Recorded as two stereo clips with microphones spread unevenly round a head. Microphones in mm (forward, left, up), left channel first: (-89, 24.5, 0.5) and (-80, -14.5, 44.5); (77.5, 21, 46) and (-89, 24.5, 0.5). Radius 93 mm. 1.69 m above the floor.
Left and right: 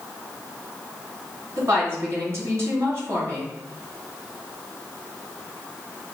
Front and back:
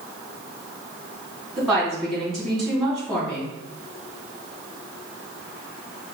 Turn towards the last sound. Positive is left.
turn(degrees=-90)